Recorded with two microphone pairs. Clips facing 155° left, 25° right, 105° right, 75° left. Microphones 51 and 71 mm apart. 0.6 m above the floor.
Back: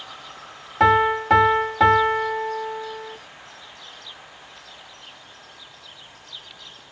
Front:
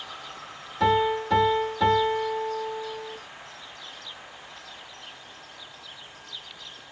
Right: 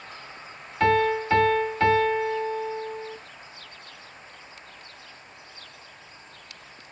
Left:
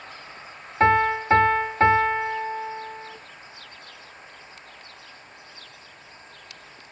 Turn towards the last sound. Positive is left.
turn(degrees=135)